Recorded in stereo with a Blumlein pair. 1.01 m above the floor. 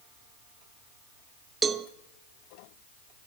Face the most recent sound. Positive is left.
turn(degrees=-15)